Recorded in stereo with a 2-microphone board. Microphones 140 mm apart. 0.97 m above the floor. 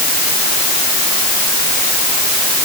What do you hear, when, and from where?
Only background noise.